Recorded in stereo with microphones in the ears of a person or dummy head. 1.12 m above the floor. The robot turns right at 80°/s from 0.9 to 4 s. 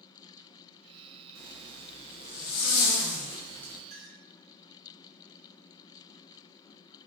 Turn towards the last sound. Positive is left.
turn(degrees=-30)  # may be behind; listen again after turning